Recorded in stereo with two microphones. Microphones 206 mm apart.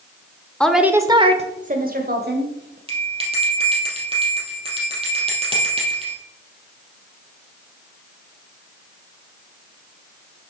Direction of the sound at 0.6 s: 5° left (ahead or behind).